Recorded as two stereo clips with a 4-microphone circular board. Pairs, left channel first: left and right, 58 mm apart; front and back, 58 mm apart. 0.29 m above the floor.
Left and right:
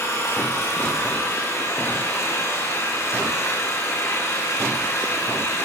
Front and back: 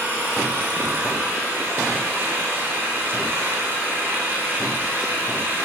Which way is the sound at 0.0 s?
125° left.